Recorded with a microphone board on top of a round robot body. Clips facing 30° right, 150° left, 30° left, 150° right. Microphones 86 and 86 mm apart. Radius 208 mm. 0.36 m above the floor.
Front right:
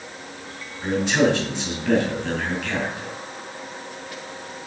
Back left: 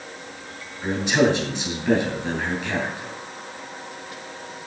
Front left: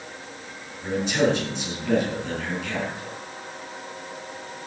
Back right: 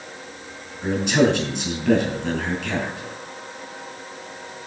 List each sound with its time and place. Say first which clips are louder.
0.8 s a man speaking: even, back right 4 dB; 145° right, 5 m